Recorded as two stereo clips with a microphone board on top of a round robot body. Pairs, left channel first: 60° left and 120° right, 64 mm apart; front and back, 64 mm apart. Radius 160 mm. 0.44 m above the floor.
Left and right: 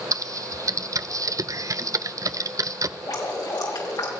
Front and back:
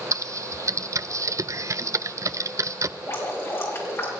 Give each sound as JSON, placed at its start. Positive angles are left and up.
{"t": 0.1, "sound": "typing on a keyboard", "azimuth_deg": -145, "distance_m": 0.7}
{"t": 3.0, "sound": "dripping", "azimuth_deg": 50, "distance_m": 5.0}